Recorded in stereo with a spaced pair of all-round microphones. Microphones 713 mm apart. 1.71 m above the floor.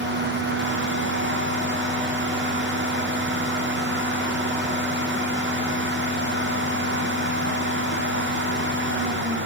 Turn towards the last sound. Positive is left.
turn(degrees=-15)  # may be behind; listen again after turning